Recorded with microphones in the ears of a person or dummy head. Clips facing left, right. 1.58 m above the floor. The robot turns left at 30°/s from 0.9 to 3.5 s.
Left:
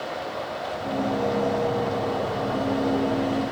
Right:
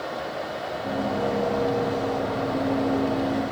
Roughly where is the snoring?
I don't hear snoring.